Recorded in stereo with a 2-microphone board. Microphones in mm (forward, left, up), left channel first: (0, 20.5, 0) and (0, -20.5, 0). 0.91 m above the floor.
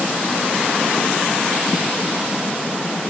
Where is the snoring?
I don't hear snoring.